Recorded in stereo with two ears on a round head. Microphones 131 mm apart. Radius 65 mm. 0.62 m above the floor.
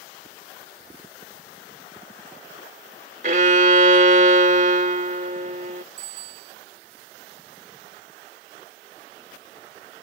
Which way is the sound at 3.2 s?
55° right (ahead or behind).